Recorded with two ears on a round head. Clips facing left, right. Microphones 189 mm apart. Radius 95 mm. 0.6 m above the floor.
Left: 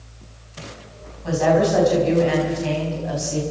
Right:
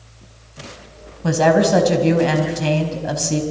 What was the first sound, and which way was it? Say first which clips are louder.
A woman speaking: right 3 dB; 65° right (ahead or behind).